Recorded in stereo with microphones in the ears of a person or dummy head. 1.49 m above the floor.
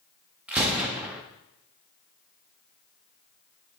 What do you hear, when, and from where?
0.5 s a gunshot: 5° right (ahead or behind), 0.7 m